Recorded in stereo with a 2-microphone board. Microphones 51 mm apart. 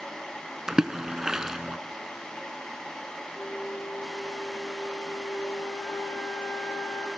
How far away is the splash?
About 1.3 m.